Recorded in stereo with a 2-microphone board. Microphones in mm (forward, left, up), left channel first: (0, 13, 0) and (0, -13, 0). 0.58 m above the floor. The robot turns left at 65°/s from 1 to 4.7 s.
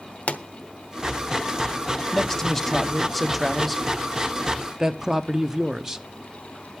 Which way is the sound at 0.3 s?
65° left (ahead or behind).